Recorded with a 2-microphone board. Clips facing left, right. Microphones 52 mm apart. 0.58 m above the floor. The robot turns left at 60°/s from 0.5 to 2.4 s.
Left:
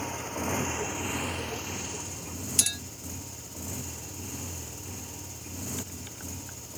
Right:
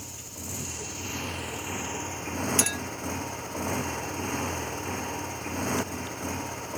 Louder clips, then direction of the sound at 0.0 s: Left 10 dB; 55° left.